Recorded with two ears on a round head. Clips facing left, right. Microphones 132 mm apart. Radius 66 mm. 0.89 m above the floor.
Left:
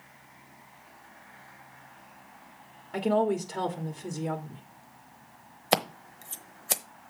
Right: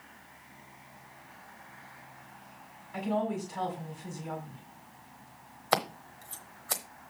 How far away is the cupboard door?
No cupboard door in this recording.